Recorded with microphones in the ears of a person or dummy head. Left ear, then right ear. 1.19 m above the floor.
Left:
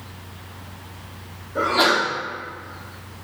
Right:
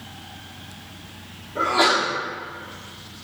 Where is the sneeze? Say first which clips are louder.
Left 1 dB; 30° left (ahead or behind), 2.0 m.